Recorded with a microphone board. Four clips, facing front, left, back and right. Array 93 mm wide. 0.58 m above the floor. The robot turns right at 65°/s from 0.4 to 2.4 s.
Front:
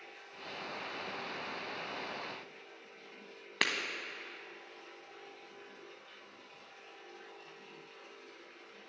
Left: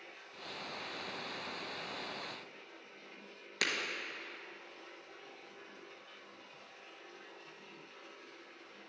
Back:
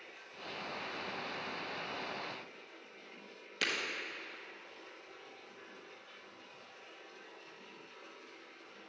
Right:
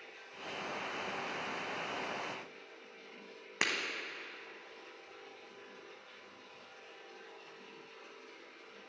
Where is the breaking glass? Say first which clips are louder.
Right 1 dB, front 3 dB; 25° right, 1.0 m.